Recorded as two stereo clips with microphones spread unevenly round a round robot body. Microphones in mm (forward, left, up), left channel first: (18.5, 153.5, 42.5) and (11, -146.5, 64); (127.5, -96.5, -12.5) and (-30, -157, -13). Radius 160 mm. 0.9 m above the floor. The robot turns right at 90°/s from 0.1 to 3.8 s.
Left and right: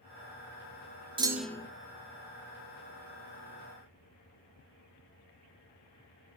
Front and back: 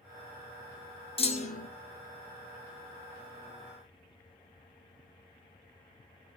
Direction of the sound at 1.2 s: 20° right.